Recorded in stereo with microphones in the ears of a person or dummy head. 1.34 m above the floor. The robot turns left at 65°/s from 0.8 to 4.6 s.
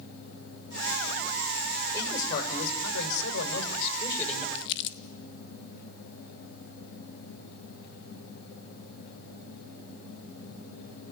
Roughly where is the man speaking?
Behind.